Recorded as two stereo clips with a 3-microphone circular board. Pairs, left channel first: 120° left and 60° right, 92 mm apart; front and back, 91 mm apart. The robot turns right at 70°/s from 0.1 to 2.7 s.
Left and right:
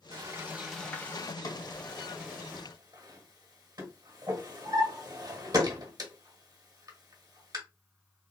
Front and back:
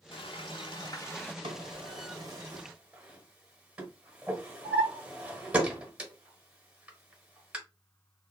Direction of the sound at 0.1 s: 15° right.